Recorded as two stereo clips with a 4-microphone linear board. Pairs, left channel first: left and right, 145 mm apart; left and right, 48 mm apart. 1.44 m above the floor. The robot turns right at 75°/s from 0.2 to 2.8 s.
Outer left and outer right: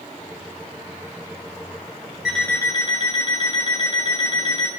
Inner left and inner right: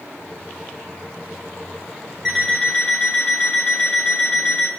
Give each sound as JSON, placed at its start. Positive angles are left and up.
{"t": 2.2, "sound": "an alarm clock", "azimuth_deg": -5, "distance_m": 4.5}